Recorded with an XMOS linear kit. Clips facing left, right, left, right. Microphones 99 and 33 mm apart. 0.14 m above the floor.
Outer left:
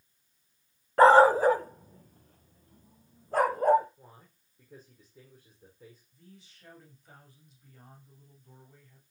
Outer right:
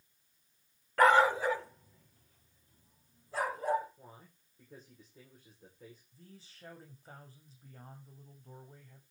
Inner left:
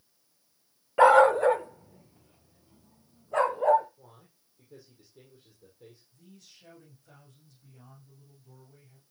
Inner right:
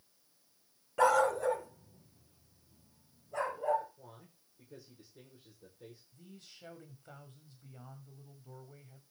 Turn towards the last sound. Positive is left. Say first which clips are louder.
# outer left 1 dB, even
turn(degrees=-35)  # may be behind; listen again after turning